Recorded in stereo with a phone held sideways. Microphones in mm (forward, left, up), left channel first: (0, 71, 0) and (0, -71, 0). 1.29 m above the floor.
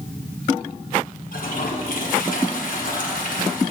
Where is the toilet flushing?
70° left (ahead or behind), 1.4 m.